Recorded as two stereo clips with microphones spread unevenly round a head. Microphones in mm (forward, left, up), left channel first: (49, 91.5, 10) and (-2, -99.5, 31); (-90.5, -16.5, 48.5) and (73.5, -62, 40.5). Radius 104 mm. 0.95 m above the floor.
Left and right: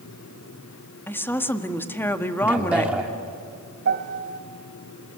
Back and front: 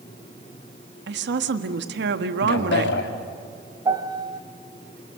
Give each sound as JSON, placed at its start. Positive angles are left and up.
{"t": 1.1, "sound": "a woman speaking", "azimuth_deg": -5, "distance_m": 1.6}
{"t": 2.4, "sound": "a man speaking", "azimuth_deg": 170, "distance_m": 3.0}
{"t": 3.9, "sound": "a piano", "azimuth_deg": -80, "distance_m": 1.7}